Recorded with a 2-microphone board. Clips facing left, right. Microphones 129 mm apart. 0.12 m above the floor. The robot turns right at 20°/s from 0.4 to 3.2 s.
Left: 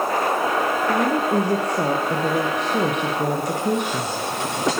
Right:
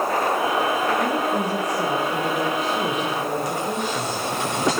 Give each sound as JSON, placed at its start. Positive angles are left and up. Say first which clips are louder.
{"t": 0.9, "sound": "a woman speaking", "louder": "left 2 dB", "azimuth_deg": 60, "distance_m": 4.5}